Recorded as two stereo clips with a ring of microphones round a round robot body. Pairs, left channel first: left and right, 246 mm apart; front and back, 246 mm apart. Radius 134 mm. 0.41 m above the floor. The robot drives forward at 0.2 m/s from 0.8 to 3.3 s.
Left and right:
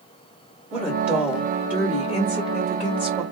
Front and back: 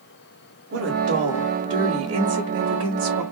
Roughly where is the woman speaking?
Behind.